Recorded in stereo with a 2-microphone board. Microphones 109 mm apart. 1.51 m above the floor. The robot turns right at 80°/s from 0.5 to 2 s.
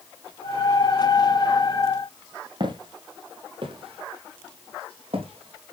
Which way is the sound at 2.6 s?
45° right (ahead or behind).